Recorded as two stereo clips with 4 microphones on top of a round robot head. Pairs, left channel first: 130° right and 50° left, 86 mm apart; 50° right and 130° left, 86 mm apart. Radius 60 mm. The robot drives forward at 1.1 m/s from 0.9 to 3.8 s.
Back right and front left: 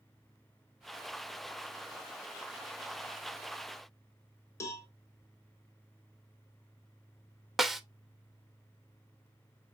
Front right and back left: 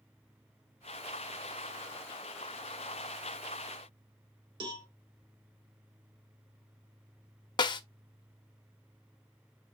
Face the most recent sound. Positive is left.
turn(degrees=-40)